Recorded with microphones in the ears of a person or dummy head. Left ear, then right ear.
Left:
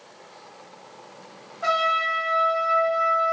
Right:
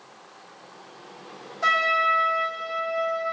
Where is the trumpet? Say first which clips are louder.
Right 1 dB; 85° right, 2.5 m.